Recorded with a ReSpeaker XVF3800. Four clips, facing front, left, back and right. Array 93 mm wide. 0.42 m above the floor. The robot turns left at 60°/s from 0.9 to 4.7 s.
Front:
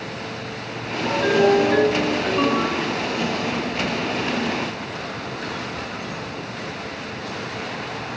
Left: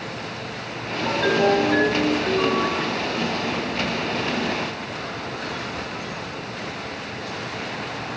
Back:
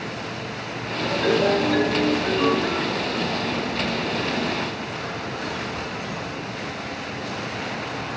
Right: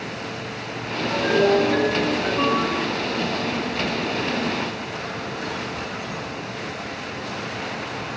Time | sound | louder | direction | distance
1.1 | a ringtone | right 1 dB, front 3 dB | 75° left | 2 m